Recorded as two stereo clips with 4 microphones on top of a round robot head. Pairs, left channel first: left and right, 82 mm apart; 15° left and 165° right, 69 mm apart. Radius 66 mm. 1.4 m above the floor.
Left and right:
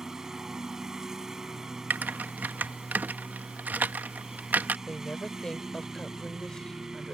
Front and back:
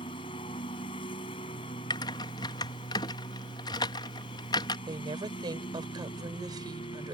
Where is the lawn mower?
10° right.